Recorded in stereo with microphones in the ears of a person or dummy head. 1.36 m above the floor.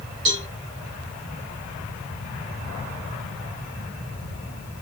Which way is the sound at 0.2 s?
25° right (ahead or behind).